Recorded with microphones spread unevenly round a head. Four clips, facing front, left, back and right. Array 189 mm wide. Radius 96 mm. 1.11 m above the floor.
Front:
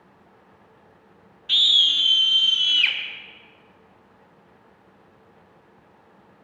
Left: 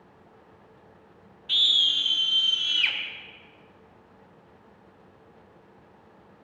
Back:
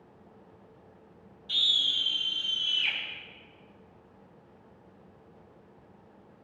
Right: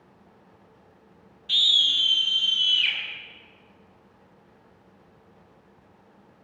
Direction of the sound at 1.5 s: 5° left.